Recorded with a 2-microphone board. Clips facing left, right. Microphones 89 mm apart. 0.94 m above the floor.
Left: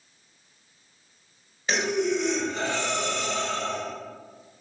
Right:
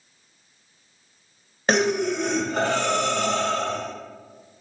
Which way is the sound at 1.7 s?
60° right (ahead or behind).